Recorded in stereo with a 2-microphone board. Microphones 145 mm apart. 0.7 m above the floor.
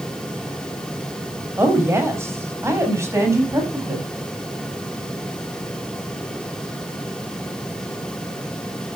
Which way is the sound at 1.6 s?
15° right (ahead or behind).